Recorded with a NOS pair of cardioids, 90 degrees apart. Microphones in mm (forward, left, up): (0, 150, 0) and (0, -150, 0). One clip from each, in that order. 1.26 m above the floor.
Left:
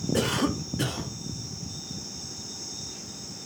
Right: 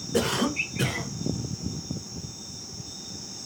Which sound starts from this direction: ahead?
A cough, at 0.1 s.